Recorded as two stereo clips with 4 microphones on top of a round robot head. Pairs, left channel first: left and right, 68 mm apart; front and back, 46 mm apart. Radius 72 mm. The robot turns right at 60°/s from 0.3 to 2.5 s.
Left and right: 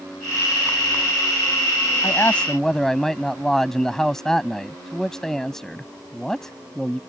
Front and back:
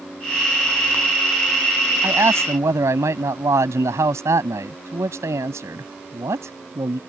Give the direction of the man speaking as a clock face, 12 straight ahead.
7 o'clock.